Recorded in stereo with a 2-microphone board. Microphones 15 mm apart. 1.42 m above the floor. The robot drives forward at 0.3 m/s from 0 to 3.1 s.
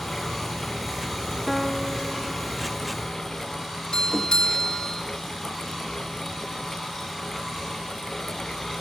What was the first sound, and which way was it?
A piano, 5° left (ahead or behind).